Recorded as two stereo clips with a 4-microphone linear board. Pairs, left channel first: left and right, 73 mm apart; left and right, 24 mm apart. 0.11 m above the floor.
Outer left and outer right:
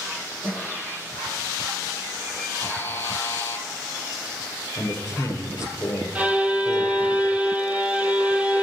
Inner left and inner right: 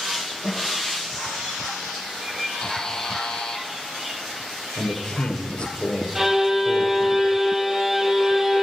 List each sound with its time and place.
0.4 s a snare drum: 25° right (ahead or behind), 3 m
2.6 s a buzzer: 30° left (ahead or behind), 1.0 m
4.8 s a man speaking: 40° left (ahead or behind), 2.0 m
6.2 s a violin: 20° right (ahead or behind), 1.0 m